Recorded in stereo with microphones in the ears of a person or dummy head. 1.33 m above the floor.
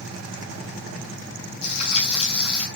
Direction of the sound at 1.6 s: 40° left (ahead or behind).